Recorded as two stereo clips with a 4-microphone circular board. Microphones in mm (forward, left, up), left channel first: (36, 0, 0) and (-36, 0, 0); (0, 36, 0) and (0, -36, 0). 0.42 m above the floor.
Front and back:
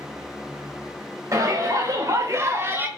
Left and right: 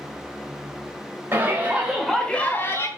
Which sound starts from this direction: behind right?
A shout, at 1.3 s.